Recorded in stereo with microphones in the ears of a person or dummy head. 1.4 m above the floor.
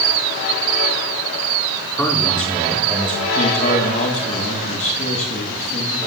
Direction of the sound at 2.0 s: 5° left (ahead or behind).